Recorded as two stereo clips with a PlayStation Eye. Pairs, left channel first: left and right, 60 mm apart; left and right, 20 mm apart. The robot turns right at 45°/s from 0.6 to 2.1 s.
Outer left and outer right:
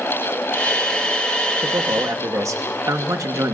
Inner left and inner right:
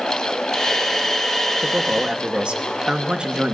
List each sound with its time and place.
1.6 s a man speaking: 70° right (ahead or behind), 1.2 m; by 3.5 s 60° right (ahead or behind), 1.2 m